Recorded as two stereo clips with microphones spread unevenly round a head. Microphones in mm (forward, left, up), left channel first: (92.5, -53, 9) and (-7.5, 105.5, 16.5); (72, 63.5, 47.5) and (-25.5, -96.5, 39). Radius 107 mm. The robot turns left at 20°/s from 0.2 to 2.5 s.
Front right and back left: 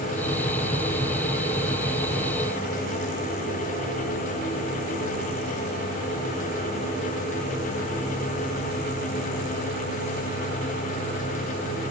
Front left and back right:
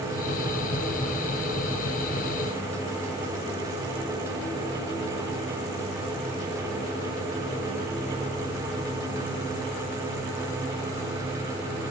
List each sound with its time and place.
Only background noise.